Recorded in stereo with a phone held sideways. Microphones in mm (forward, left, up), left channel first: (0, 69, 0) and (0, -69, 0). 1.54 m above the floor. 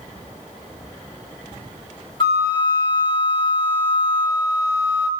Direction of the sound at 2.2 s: 35° left (ahead or behind).